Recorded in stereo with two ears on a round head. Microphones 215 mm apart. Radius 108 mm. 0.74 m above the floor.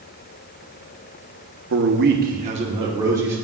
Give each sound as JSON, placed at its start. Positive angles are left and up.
{"t": 1.7, "sound": "a man speaking", "side_deg": -55, "distance_m": 0.8}